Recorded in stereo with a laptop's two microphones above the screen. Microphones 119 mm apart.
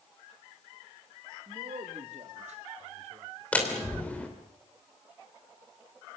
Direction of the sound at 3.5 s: 10° left (ahead or behind).